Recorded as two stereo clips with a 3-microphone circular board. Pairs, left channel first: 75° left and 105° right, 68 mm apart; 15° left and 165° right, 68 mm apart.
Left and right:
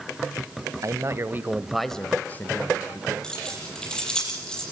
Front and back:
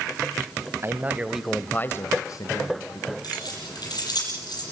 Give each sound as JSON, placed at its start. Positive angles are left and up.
{"t": 0.8, "sound": "a man speaking", "azimuth_deg": -125, "distance_m": 1.4}
{"t": 3.2, "sound": "keys jangling", "azimuth_deg": -5, "distance_m": 7.5}